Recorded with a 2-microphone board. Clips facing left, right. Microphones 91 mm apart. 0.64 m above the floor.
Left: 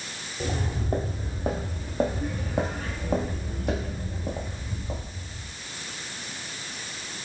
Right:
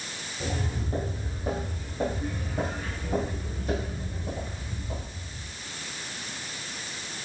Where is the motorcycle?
I don't hear a motorcycle.